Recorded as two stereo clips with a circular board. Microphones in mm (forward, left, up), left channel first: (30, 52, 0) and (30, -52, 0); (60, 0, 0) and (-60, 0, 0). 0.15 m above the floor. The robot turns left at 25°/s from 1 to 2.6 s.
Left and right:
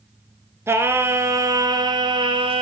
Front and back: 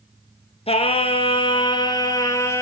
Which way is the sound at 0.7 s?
25° right.